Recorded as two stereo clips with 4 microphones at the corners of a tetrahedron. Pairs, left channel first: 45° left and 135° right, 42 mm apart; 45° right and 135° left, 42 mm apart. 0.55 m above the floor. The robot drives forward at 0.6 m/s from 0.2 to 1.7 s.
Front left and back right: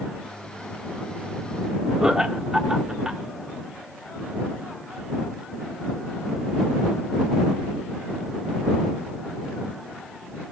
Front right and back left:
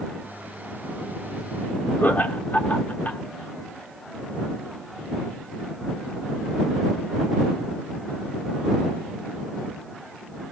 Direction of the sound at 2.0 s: 65° right.